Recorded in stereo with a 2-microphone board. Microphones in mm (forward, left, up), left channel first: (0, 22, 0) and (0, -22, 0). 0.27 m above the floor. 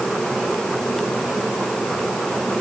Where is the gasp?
No gasp in this recording.